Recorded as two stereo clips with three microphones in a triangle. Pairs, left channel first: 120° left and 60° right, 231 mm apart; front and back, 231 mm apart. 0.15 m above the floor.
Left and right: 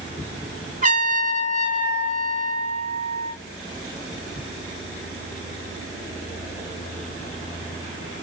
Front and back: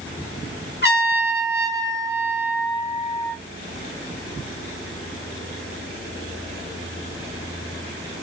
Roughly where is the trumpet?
Ahead.